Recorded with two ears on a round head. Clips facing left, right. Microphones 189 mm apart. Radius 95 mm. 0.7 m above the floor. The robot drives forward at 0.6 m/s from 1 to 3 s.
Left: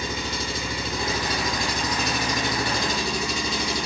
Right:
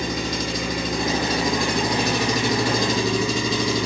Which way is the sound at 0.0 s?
40° right (ahead or behind).